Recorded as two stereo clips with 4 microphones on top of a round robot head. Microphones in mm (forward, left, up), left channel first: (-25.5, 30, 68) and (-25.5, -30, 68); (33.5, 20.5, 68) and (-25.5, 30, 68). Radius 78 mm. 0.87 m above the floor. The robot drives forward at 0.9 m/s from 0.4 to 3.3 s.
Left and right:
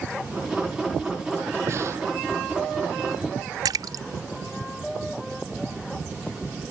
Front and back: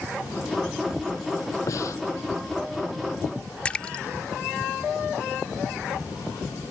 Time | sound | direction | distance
1.7 | breathing | 45° right | ?
3.6 | a splash | 80° right | ?